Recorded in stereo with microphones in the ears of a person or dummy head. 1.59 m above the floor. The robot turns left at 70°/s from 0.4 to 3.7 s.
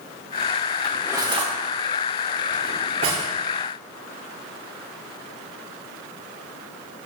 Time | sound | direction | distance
0.8 | cutlery clinking | 5° left (ahead or behind) | 3.5 m